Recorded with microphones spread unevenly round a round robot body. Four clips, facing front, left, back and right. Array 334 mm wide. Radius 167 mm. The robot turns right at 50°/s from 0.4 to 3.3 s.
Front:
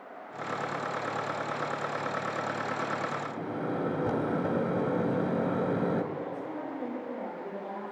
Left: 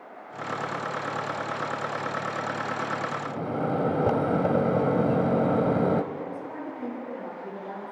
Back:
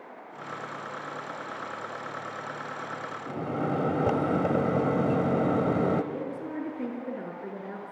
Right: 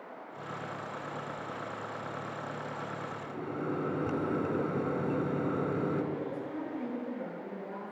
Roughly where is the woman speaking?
Behind.